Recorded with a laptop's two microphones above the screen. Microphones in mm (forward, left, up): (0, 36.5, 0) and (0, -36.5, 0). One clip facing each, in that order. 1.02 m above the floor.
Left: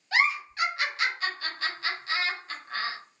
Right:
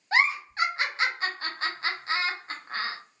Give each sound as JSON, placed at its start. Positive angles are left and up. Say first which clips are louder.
{"t": 0.1, "sound": "a giggle", "louder": "right 1 dB", "side_deg": -35, "distance_m": 0.6}